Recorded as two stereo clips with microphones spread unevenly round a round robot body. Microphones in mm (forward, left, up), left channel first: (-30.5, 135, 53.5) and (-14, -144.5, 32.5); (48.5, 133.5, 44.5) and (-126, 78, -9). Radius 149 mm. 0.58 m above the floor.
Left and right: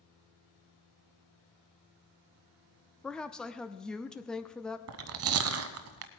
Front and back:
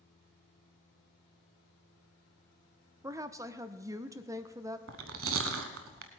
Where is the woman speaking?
175° right, 0.7 m.